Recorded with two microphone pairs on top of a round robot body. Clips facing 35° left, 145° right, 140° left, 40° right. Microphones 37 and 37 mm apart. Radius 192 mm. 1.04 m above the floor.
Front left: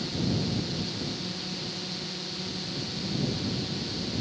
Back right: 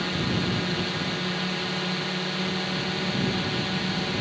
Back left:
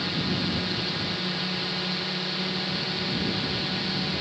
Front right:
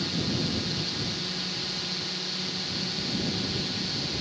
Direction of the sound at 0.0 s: 155° right.